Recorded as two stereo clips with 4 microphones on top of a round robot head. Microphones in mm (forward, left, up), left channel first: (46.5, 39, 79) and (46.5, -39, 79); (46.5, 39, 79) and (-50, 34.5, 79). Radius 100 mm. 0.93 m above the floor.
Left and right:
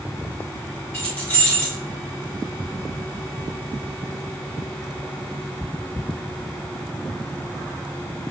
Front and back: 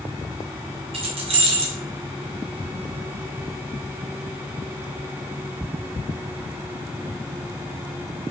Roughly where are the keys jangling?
Behind.